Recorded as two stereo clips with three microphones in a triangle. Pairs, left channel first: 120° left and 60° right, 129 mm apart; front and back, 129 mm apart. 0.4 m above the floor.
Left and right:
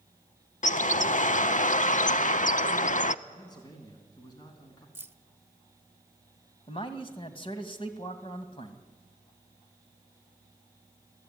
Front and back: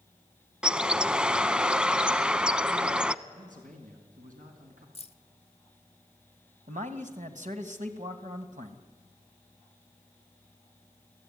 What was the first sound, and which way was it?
A bird, 100° left.